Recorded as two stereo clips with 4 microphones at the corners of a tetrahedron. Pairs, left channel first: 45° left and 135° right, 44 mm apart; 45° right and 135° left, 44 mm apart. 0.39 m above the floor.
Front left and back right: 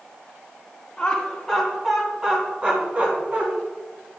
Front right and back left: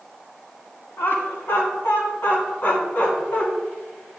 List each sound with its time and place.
1.0 s laughter: 30° right, 3 m; by 3.5 s 90° right, 4 m